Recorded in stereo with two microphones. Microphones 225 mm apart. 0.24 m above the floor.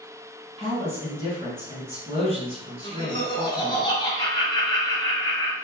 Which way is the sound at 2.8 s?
20° left (ahead or behind).